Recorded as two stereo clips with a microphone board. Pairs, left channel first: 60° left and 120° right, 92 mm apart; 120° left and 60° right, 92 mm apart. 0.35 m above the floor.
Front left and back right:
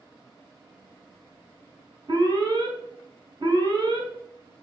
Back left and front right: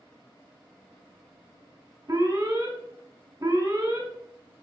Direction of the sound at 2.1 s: 100° right.